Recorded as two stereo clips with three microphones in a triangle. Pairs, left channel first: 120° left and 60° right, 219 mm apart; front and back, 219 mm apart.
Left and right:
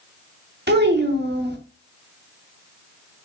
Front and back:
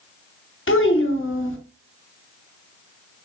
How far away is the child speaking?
About 0.9 m.